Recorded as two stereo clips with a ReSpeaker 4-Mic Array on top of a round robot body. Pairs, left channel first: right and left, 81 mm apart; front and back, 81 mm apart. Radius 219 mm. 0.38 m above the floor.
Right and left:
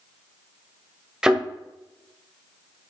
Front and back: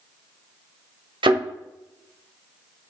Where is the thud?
170° left, 1.5 m.